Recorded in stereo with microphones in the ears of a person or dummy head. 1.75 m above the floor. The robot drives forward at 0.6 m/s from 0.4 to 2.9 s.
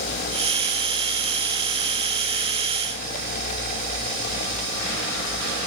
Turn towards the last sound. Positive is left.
No sound to turn to.